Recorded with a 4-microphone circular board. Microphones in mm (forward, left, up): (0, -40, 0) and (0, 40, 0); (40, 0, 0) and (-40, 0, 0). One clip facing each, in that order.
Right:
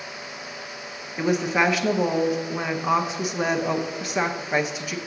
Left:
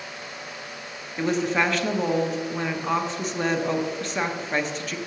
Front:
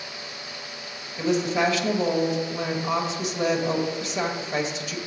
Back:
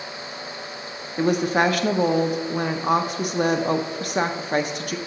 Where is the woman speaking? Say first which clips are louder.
Right 1 dB, back 3 dB; 170° right, 0.8 m.